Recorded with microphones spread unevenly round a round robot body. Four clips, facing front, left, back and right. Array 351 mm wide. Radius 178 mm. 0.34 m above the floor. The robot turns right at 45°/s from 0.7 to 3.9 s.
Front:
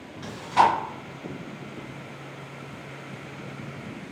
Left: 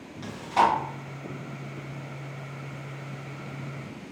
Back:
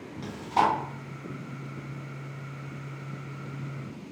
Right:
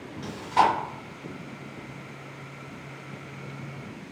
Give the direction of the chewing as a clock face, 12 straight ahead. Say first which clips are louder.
Right 1 dB, front 4 dB; 6 o'clock.